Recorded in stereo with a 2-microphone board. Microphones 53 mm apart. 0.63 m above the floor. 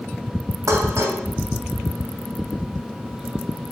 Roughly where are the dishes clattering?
Right.